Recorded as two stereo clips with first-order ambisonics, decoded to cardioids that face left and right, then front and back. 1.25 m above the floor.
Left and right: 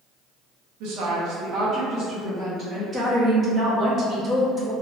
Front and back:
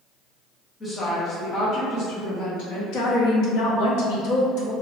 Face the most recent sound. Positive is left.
turn(degrees=-20)